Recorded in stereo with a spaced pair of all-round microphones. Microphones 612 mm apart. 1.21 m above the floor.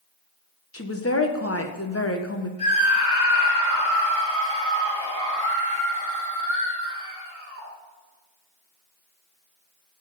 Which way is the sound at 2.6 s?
60° left (ahead or behind).